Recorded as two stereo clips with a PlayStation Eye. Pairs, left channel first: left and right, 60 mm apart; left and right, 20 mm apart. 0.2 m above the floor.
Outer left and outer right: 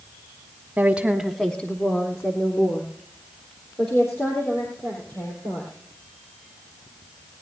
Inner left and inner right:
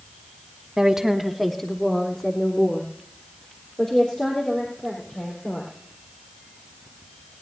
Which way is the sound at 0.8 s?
30° right (ahead or behind).